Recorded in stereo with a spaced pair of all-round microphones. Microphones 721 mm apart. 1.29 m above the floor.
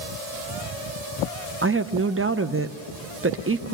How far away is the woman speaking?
About 0.7 m.